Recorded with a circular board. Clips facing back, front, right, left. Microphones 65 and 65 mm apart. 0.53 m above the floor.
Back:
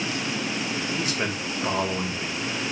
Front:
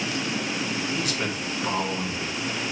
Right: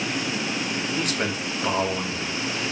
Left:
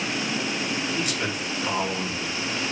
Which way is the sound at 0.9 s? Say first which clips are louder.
Back 1 dB, right 1 dB; 125° right.